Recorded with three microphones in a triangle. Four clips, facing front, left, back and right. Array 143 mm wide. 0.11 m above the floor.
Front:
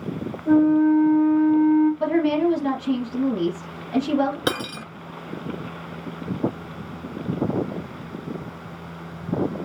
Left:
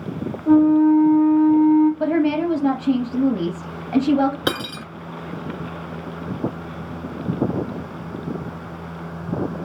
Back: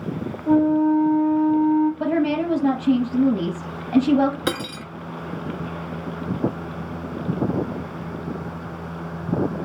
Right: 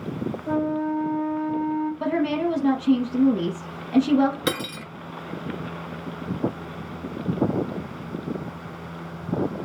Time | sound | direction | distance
0.5 | a flute | 100° left | 2 m
2.0 | a woman speaking | 120° left | 2 m
4.5 | cutlery clinking | 65° left | 0.7 m